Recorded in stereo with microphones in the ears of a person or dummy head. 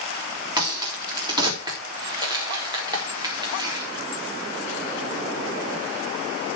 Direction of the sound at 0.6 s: 25° right (ahead or behind).